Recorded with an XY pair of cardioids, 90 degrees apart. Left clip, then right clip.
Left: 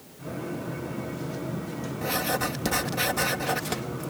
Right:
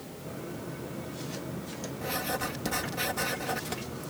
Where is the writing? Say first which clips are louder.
Left 5 dB; 45° left.